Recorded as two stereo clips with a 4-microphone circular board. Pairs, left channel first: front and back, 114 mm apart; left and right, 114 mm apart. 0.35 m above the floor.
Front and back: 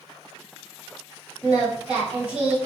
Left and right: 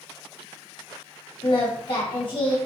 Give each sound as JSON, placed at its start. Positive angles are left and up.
{"t": 1.4, "sound": "singing", "azimuth_deg": 105, "distance_m": 1.9}